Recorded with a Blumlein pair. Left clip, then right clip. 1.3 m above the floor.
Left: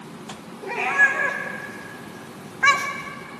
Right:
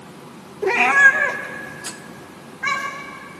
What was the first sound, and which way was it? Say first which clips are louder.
A cat meowing: right 6 dB; 35° right.